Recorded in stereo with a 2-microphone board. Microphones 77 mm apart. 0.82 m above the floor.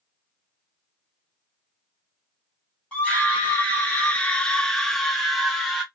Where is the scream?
10° left (ahead or behind), 1.1 m; by 5.8 s centre (ahead or behind), 1.4 m.